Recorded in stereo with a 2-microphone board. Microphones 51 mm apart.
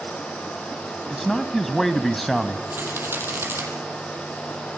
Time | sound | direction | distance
1.1 | a man speaking | 5° left (ahead or behind) | 1.1 m
2.7 | a rattle | 45° right (ahead or behind) | 5.5 m